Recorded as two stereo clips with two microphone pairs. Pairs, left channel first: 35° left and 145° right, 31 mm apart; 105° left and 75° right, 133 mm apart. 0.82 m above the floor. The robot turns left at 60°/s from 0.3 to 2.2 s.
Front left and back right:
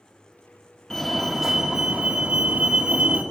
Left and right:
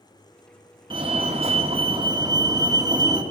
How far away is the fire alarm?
About 2 m.